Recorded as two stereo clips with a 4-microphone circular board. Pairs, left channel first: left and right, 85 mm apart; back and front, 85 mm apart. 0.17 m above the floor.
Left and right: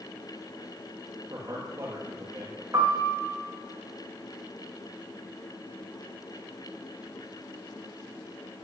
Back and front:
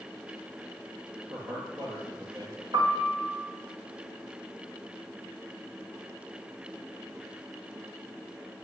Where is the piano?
35° right, 3.5 m.